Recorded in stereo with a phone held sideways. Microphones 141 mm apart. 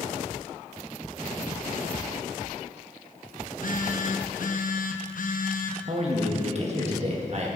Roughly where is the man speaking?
Right.